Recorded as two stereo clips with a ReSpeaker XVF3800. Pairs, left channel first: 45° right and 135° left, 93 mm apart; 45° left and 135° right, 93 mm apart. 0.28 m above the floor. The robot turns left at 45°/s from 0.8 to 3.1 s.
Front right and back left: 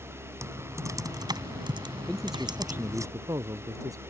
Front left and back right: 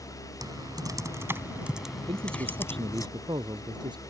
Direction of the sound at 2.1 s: 125° right.